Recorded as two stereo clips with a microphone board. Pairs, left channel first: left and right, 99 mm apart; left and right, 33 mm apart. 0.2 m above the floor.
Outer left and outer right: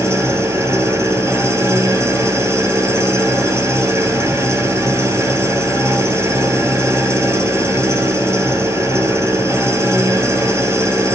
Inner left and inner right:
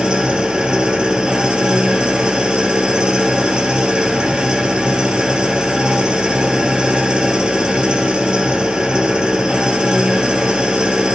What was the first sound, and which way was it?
An engine running, 30° right (ahead or behind).